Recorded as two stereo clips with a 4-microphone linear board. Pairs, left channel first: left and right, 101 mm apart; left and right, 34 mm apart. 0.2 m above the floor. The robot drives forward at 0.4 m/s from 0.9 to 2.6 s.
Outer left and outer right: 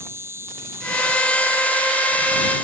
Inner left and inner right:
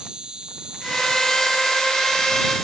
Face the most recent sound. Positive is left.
turn(degrees=-15)  # may be behind; listen again after turning